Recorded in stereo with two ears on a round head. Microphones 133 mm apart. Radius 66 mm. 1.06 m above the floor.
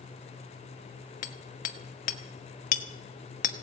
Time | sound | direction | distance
1.2 | hammering | 55° left (ahead or behind) | 1.2 m